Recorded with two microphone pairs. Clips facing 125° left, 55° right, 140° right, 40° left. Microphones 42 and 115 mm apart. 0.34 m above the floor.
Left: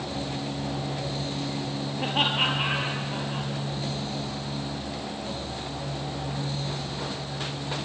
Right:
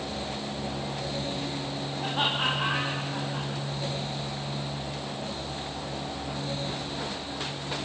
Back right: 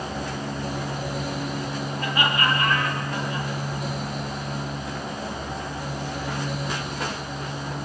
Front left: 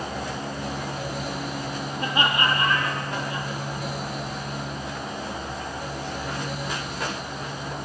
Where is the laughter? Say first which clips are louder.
Left 3 dB, front left 1 dB; 110° left, 6.5 m; by 3.5 s 105° left, 9 m.